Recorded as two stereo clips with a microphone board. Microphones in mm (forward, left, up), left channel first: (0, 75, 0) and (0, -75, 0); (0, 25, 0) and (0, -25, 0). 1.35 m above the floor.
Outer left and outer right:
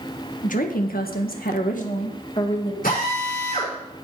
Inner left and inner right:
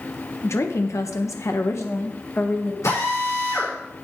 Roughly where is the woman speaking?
Left.